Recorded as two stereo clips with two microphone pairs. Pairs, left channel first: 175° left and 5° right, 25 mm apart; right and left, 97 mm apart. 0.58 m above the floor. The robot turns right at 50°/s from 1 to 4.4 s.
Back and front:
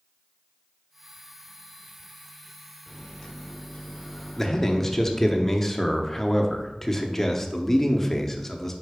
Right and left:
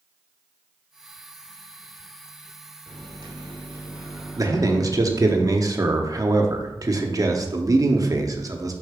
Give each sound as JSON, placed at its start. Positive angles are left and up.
{"t": 2.9, "sound": "a microwave", "azimuth_deg": 105, "distance_m": 1.2}
{"t": 4.4, "sound": "a man speaking", "azimuth_deg": 110, "distance_m": 0.8}